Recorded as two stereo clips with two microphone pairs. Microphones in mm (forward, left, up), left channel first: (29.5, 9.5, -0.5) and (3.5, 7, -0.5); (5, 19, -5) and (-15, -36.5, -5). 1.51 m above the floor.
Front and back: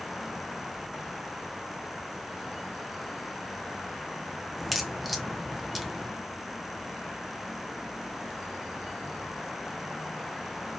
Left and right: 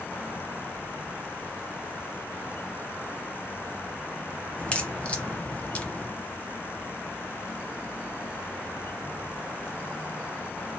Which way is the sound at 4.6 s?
100° left.